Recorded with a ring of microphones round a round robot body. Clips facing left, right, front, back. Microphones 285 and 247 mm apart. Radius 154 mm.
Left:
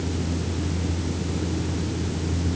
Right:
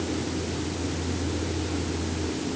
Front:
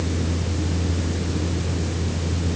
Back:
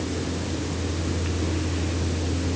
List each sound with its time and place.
Only background noise.